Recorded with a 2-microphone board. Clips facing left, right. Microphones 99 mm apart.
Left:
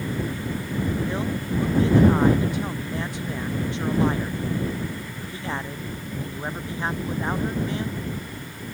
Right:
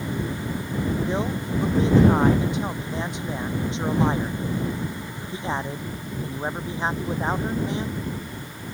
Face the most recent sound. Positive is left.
turn(degrees=-20)  # may be behind; listen again after turning